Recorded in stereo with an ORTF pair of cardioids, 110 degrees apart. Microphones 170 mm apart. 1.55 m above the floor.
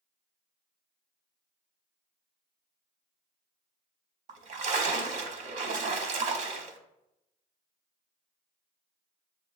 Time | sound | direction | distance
4.3 | a splash | 45° right | 0.7 m